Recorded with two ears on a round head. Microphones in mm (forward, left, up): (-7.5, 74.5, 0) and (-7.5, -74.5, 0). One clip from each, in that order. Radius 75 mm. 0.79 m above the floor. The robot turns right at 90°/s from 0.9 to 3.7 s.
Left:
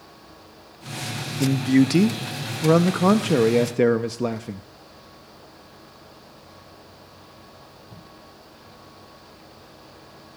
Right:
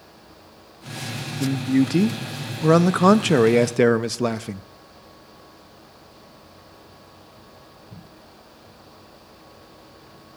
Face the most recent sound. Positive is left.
turn(degrees=-55)